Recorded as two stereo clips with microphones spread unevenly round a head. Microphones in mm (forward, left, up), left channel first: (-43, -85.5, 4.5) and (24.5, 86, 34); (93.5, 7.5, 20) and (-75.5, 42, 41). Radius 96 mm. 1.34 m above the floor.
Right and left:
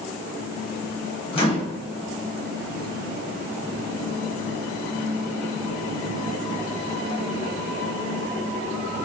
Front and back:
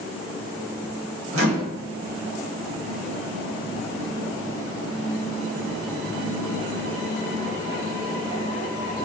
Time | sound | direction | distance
1.3 | a microwave | 175° right | 1.0 m